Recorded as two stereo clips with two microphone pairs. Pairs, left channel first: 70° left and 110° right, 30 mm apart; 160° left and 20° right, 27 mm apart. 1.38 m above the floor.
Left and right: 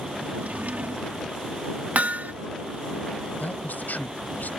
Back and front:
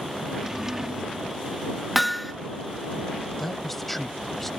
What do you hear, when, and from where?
0.3 s a drawer: 95° right
1.9 s hammering: 110° right
3.4 s a man speaking: 75° left